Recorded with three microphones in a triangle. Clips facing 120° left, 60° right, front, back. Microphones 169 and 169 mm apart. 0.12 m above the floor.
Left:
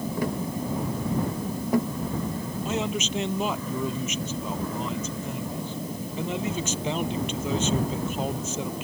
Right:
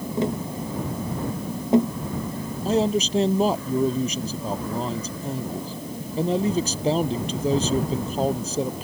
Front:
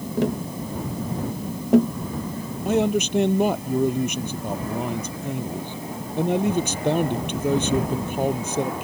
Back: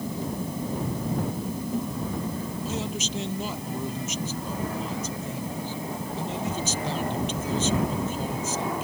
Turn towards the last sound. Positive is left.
turn(degrees=-10)